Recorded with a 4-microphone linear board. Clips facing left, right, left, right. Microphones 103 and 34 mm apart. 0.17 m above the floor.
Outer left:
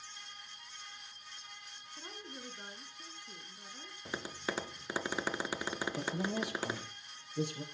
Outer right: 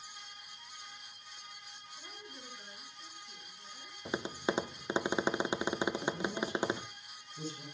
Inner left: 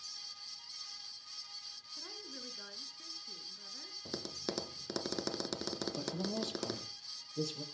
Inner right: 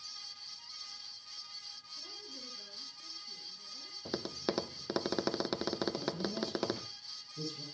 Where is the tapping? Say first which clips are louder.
Outer right 5 dB, inner right 5 dB; 20° right (ahead or behind), 0.5 m.